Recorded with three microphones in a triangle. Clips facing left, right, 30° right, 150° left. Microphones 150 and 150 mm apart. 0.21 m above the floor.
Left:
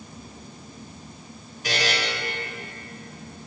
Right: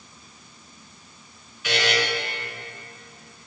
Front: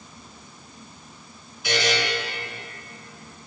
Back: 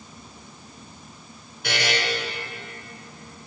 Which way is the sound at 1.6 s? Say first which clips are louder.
Right 2 dB, front 3 dB; 135° left.